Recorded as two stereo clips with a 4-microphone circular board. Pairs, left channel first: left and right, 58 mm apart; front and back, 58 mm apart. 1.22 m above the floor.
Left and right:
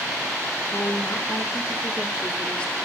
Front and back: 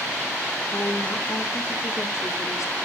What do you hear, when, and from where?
0.7 s a woman speaking: 50° left, 2.5 m; by 2.8 s 20° left, 3 m